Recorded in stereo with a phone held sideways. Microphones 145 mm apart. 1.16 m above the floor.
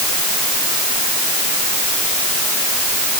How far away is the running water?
No running water in this recording.